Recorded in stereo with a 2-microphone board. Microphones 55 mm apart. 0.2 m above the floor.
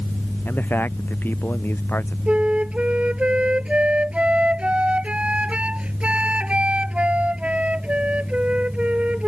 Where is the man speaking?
40° left (ahead or behind); by 2.2 s 45° left (ahead or behind).